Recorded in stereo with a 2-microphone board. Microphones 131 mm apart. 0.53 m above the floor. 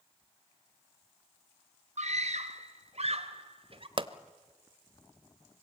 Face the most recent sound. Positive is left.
turn(degrees=-45)  # may be behind; listen again after turning